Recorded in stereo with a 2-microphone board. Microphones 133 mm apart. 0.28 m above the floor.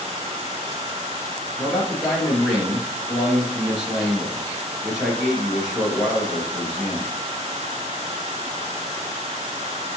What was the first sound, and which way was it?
A man speaking, 5° right (ahead or behind).